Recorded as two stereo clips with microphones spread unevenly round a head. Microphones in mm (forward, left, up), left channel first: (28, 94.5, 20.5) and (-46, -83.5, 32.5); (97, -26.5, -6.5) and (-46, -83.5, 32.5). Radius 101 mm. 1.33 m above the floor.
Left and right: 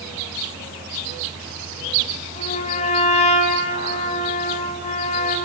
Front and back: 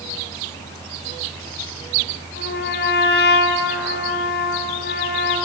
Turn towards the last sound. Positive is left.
turn(degrees=5)